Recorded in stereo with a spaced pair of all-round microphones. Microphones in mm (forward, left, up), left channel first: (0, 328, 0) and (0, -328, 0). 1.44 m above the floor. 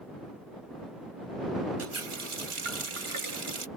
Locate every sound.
1.8 s a running tap: 50° right (ahead or behind)